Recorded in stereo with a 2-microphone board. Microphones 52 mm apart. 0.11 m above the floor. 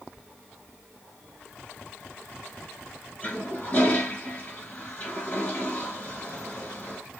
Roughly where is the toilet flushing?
Left.